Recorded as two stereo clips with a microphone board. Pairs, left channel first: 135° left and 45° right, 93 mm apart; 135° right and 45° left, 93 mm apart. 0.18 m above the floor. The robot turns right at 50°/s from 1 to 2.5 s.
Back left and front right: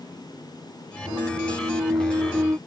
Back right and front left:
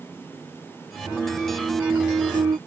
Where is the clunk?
60° right; by 2.6 s 15° left.